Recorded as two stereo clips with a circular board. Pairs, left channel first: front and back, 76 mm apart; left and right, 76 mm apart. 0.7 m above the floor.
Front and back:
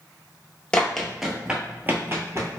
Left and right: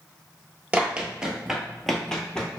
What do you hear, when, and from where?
0.7 s running footsteps: 65° right, 0.7 m; by 2.6 s 160° left, 0.9 m